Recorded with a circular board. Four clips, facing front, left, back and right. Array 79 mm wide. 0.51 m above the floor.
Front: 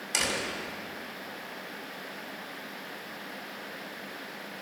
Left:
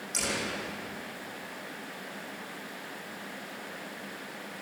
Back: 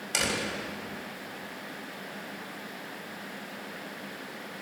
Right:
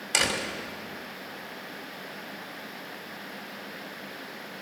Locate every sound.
0.1 s a door slam: 100° right, 2 m